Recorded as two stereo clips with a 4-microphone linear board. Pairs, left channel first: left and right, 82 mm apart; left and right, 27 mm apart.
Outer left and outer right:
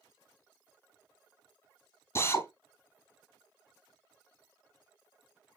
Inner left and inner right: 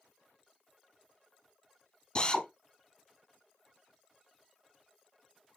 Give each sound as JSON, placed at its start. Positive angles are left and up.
{"t": 2.1, "sound": "a drill", "side_deg": 30, "distance_m": 2.5}